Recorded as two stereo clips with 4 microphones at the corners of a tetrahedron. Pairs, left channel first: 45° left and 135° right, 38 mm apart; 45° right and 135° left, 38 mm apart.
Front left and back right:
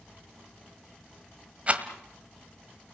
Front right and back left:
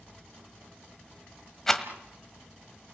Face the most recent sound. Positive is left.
turn(degrees=-115)